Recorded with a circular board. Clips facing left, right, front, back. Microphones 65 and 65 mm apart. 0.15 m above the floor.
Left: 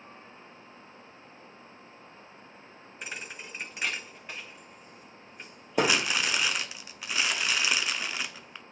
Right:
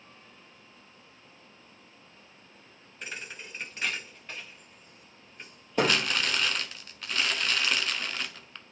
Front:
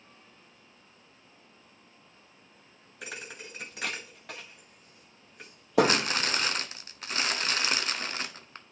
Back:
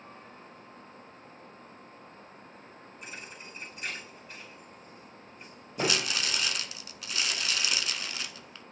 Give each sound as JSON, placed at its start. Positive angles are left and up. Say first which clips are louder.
{"t": 3.0, "sound": "a thud", "louder": "even, front 4 dB", "azimuth_deg": 10, "distance_m": 1.7}
{"t": 5.8, "sound": "crumpling", "louder": "even, front 4 dB", "azimuth_deg": 15, "distance_m": 0.8}